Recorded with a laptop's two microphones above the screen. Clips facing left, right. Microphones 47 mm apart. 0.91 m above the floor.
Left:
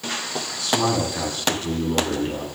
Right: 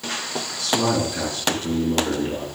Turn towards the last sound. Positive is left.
turn(degrees=20)  # may be behind; listen again after turning